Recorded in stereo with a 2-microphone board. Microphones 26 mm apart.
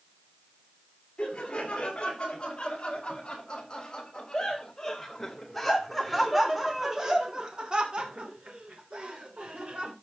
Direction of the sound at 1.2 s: 40° left (ahead or behind).